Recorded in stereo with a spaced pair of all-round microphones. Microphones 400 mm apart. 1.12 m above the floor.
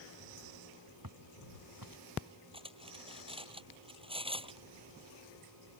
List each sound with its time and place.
1.0 s footsteps: 50° right (ahead or behind)
2.5 s cutlery clinking: 10° right (ahead or behind)